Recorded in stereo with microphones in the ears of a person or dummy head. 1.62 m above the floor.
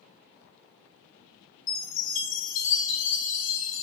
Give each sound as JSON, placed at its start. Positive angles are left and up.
{"t": 1.7, "sound": "a chime", "side_deg": 70, "distance_m": 0.9}